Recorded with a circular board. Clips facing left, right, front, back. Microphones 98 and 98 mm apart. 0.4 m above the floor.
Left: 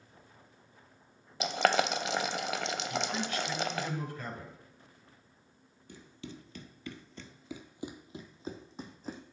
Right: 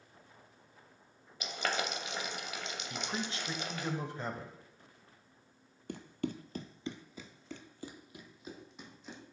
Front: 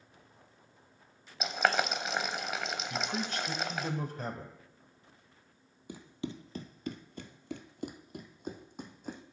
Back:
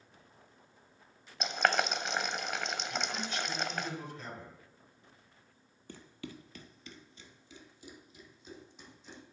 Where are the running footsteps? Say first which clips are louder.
Right 9 dB, front 6 dB; 75° right, 0.8 m; by 9.2 s 40° left, 1.5 m.